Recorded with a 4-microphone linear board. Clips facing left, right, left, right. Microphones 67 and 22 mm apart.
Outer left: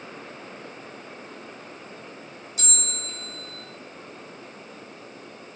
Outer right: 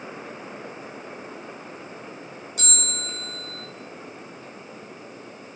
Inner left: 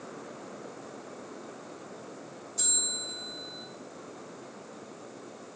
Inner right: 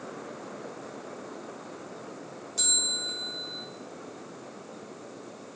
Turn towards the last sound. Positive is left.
turn(degrees=-60)  # may be behind; listen again after turning